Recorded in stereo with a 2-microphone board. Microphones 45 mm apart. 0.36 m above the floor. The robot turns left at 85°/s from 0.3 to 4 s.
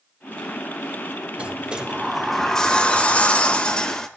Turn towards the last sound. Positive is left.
turn(degrees=30)